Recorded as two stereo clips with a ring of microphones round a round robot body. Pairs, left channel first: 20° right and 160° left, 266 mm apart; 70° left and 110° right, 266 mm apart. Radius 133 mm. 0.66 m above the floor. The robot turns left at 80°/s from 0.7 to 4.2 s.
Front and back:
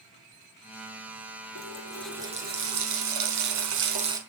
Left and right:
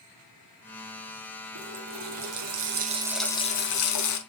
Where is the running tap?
70° right, 4 m; by 4.2 s 80° left, 4 m.